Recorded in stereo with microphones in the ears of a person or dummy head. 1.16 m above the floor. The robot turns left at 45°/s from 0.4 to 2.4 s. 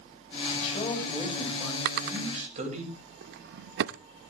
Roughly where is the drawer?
Right.